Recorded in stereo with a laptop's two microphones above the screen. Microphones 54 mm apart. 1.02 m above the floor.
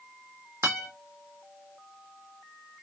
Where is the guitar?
60° right (ahead or behind), 1.1 m.